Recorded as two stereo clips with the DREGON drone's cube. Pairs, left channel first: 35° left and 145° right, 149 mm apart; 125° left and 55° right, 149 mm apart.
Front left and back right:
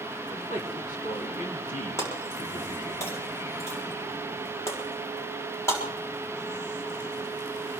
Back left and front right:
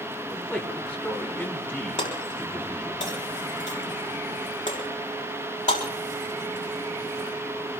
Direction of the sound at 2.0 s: 105° left.